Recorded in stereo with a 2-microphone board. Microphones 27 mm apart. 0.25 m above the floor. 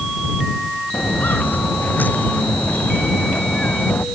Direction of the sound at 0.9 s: 80° left.